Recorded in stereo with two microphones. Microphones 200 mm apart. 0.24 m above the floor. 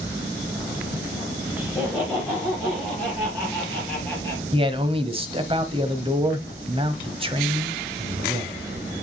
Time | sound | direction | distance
1.6 | laughter | 5° right (ahead or behind) | 5.5 m
4.5 | a man speaking | 25° right (ahead or behind) | 1.1 m